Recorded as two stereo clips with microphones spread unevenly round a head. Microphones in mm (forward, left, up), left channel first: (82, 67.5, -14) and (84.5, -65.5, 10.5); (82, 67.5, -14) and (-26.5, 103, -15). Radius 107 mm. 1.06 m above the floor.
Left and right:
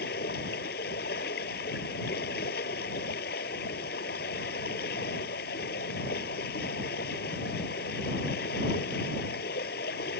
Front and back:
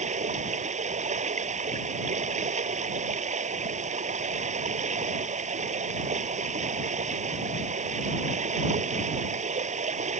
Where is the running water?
140° left.